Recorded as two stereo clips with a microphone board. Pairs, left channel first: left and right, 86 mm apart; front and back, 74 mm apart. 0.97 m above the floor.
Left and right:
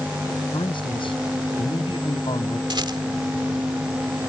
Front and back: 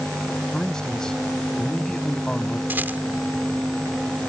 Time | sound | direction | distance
0.5 | a man speaking | 80° left | ?
2.7 | a rattle | 115° right | ?